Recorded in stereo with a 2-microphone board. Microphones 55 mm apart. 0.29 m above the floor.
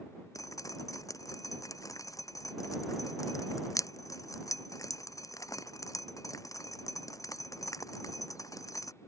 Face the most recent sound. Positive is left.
turn(degrees=80)